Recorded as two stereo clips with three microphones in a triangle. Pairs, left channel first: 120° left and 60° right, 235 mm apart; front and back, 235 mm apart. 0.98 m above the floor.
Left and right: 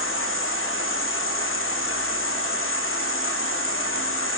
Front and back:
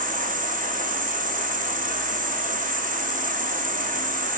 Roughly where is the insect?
Behind left.